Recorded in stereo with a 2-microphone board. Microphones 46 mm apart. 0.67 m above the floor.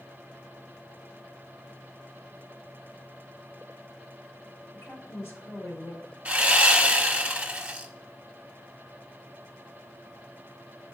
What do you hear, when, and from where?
4.7 s a woman speaking: 60° left (ahead or behind), 2.5 m
6.2 s sawing: 25° right (ahead or behind), 1.1 m